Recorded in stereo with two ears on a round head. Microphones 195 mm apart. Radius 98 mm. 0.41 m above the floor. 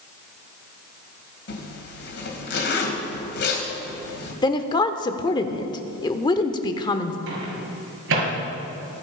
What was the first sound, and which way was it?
A zipper, 50° left (ahead or behind).